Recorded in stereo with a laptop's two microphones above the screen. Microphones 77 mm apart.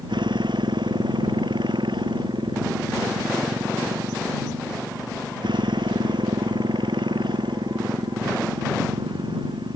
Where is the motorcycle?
75° right (ahead or behind).